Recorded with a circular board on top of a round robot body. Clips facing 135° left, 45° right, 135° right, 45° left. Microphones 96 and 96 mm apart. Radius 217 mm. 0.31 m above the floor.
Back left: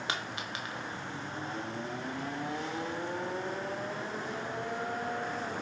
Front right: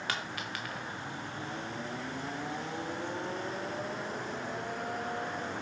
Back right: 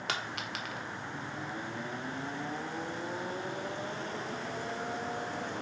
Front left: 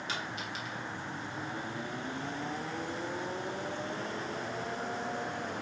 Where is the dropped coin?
155° right, 1.2 m.